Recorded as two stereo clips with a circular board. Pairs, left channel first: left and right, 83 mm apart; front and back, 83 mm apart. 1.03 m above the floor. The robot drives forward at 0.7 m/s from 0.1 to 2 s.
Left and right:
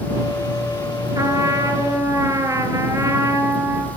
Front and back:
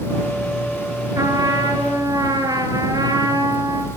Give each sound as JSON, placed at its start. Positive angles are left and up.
{"t": 1.1, "sound": "a trumpet", "azimuth_deg": -135, "distance_m": 3.0}